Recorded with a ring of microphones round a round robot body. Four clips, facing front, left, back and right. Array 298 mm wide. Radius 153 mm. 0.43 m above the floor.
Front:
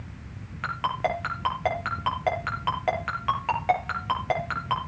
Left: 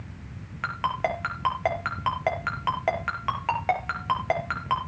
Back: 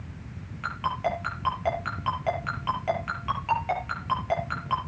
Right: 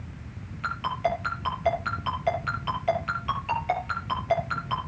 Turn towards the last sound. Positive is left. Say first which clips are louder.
# even, front 1 dB
turn(degrees=65)